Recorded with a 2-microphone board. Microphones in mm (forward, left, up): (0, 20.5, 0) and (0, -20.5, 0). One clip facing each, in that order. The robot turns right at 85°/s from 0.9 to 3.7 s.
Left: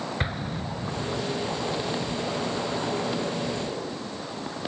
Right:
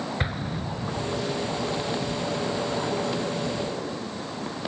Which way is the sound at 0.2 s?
Centre (ahead or behind).